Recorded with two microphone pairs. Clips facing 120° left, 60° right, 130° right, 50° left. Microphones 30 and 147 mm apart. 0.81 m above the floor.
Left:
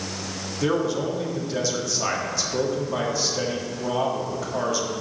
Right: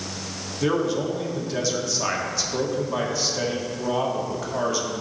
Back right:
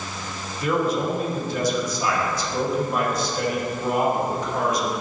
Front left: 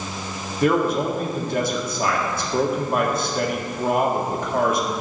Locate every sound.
0.6 s a man speaking: 30° left, 1.5 m